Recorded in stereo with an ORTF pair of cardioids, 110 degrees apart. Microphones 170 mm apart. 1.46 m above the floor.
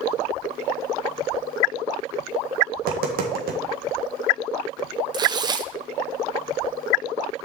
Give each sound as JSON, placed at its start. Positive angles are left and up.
{"t": 2.8, "sound": "tapping", "azimuth_deg": -60, "distance_m": 1.7}
{"t": 5.1, "sound": "tearing paper", "azimuth_deg": -25, "distance_m": 0.7}